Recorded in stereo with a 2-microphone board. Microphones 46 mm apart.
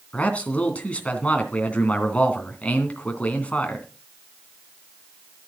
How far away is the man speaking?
About 2.5 m.